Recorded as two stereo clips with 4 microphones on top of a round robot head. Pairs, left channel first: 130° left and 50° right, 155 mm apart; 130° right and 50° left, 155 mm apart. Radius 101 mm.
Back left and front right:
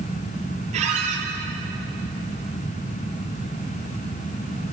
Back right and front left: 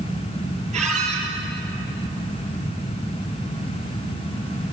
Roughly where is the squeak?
Ahead.